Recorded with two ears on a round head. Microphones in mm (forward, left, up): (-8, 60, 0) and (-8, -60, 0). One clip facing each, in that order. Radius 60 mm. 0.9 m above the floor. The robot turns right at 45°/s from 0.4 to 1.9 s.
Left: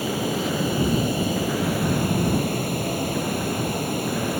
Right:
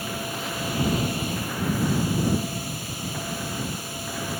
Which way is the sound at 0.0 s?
60° left.